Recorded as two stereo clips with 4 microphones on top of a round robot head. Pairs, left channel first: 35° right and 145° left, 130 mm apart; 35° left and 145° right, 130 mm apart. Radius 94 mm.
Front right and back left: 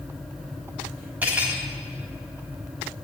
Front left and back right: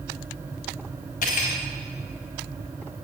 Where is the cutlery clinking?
65° left, 1.7 m.